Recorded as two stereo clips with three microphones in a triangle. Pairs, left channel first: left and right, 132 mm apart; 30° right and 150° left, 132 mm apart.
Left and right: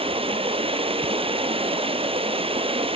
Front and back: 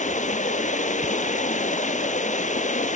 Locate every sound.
0.0 s running water: 45° right, 1.3 m